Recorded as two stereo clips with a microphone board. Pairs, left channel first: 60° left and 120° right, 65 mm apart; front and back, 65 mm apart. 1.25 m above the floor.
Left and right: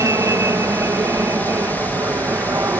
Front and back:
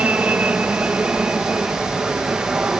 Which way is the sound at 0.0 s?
120° right.